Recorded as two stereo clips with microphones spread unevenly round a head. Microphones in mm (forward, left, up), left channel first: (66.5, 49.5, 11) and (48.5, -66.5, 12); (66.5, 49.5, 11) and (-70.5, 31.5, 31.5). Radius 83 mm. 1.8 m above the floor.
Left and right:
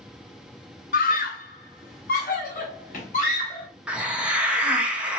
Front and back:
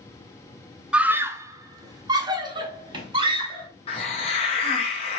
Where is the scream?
105° left, 0.6 m; by 3.7 s 130° left, 2 m.